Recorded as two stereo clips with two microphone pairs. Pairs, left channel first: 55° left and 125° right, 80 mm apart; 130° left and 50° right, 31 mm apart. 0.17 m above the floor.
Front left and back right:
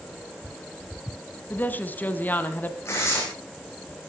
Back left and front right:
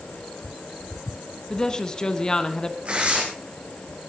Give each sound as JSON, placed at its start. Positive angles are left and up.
{"t": 1.5, "sound": "a woman speaking", "azimuth_deg": 90, "distance_m": 1.6}
{"t": 2.9, "sound": "tearing paper", "azimuth_deg": -5, "distance_m": 6.0}